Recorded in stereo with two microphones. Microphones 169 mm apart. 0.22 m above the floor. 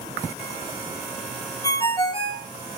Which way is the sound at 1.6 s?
25° left (ahead or behind).